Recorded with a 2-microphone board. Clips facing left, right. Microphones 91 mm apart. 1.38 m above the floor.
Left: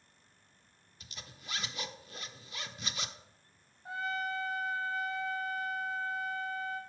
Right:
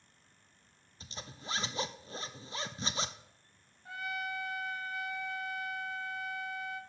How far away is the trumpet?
About 0.9 m.